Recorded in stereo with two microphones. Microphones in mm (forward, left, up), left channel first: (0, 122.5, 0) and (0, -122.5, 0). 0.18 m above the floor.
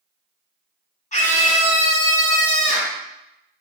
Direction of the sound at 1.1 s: 30° left (ahead or behind).